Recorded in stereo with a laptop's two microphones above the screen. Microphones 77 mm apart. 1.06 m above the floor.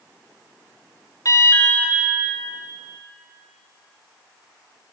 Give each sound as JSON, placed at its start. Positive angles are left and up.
{"t": 1.2, "sound": "an alarm", "side_deg": 50, "distance_m": 2.0}